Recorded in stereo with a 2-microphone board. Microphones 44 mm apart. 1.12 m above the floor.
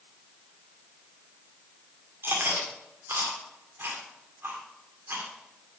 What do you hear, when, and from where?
2.2 s chewing: 60° right (ahead or behind), 2 m